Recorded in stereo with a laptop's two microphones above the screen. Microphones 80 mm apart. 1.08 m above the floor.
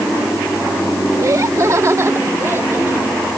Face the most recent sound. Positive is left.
turn(degrees=-25)  # may be behind; listen again after turning